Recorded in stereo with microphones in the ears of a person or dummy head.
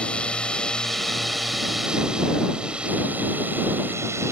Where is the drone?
10° left (ahead or behind); by 4.3 s 10° right (ahead or behind).